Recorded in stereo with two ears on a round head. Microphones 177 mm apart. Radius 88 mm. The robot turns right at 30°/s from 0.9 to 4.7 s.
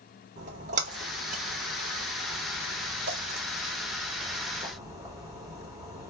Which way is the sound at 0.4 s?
40° right (ahead or behind).